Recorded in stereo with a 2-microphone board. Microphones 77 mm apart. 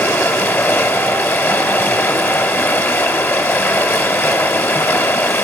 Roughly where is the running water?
Left.